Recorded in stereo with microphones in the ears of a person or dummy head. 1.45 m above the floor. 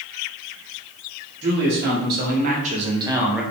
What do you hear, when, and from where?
1.4 s a man speaking: 65° right (ahead or behind), 1.6 m; by 3.4 s centre (ahead or behind), 0.8 m